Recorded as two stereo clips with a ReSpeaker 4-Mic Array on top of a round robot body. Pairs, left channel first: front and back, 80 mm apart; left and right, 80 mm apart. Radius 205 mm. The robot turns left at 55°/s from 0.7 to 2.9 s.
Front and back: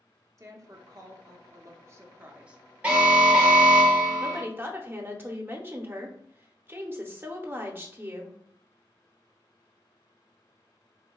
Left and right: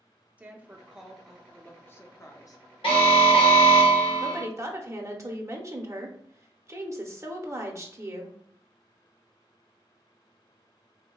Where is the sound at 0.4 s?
155° right, 0.9 m; by 2.6 s 100° left, 0.9 m.